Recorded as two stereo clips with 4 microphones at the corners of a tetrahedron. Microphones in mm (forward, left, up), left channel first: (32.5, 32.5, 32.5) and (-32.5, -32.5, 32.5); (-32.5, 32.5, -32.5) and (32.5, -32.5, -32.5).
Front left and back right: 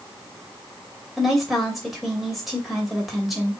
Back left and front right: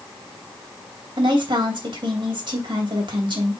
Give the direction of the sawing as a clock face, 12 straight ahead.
No sawing in this recording.